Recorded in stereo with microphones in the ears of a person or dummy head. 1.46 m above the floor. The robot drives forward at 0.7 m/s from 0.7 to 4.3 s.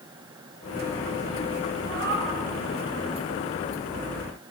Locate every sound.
1.9 s a cat meowing: 65° right (ahead or behind), 7 m